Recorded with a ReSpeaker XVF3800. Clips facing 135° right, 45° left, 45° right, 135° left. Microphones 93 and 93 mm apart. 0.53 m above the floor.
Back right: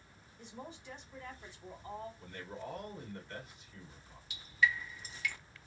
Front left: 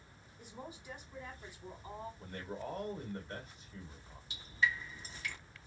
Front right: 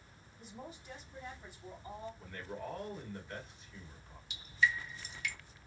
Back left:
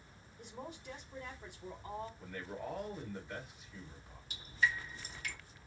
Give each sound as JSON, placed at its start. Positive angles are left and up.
{"t": 0.4, "sound": "a woman speaking", "azimuth_deg": 125, "distance_m": 1.7}
{"t": 2.2, "sound": "a man speaking", "azimuth_deg": 65, "distance_m": 1.6}
{"t": 4.3, "sound": "dripping", "azimuth_deg": 95, "distance_m": 0.9}